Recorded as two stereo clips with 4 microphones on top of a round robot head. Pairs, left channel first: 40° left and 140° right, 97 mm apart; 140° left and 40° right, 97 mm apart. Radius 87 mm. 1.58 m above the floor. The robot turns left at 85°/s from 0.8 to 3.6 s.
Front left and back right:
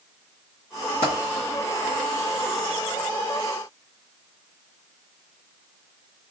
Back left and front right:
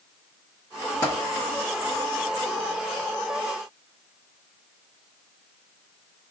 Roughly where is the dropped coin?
Left.